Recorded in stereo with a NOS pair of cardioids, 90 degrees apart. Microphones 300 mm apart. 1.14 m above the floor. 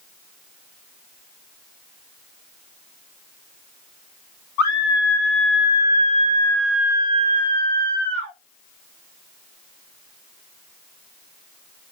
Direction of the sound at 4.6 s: 65° left.